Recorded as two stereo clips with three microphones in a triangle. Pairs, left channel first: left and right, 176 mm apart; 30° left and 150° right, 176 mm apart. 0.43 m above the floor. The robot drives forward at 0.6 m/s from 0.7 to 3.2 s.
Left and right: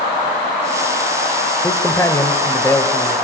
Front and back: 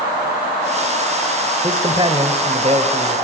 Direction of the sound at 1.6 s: 155° left.